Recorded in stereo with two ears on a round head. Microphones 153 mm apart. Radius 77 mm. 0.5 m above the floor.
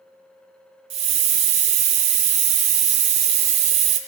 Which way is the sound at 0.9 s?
35° right (ahead or behind).